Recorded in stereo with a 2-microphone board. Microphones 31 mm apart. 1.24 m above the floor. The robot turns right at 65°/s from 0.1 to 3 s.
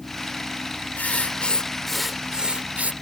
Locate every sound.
1.0 s writing: 110° left; by 2.9 s 125° right